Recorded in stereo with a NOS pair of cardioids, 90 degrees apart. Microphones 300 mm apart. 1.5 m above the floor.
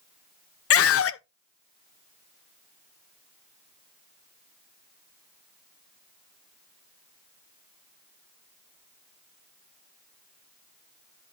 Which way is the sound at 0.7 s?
50° left.